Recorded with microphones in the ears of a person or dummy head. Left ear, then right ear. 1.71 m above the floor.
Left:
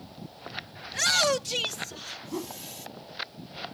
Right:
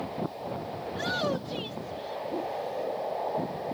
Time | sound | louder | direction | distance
0.9 | a shout | left 7 dB | 65° left (ahead or behind) | ?
2.3 | a whoosh | right 3 dB | 65° left (ahead or behind) | ?